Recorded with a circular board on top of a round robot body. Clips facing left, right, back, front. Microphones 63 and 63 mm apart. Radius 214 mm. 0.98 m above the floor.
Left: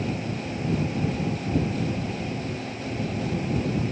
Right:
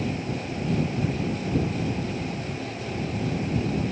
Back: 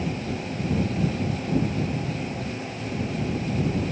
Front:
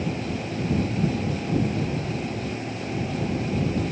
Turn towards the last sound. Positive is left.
No sound to turn to.